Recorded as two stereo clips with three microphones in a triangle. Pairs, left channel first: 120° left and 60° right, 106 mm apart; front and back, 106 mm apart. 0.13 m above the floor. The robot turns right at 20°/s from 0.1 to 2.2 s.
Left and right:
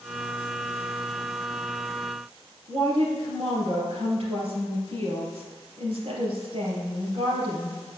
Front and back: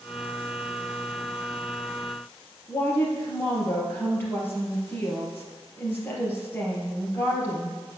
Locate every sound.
2.7 s a woman speaking: 70° right, 3.5 m